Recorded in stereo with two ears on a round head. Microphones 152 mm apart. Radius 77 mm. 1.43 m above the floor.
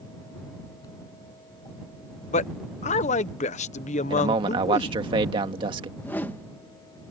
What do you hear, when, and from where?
2.3 s a man speaking: 45° left (ahead or behind)
4.1 s a man speaking: 30° right (ahead or behind)
6.0 s a whoosh: 10° left (ahead or behind)